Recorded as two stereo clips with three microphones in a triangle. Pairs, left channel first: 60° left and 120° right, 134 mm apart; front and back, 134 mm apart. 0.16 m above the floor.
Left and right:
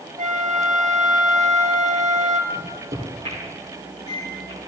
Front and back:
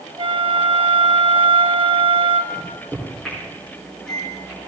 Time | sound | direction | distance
0.2 | a flute | 135° right | 0.9 m
2.5 | a microwave | 85° right | 5 m